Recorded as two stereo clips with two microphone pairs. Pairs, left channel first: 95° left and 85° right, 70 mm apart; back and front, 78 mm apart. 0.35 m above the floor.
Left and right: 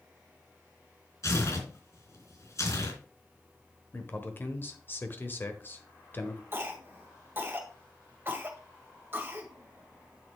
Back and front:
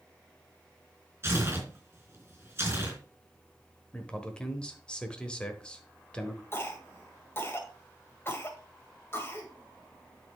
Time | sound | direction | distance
1.2 | tearing paper | 55° left | 3.5 m
3.9 | a man speaking | 110° left | 1.1 m
6.5 | a cough | 135° right | 1.9 m